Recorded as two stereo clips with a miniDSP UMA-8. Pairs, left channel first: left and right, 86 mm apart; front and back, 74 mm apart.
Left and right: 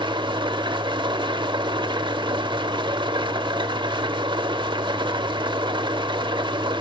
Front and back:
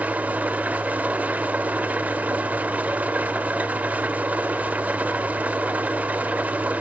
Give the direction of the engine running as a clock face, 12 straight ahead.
4 o'clock.